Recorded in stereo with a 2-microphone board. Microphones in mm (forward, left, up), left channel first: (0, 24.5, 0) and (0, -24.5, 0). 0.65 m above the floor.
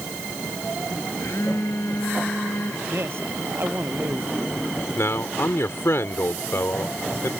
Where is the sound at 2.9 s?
55° right (ahead or behind).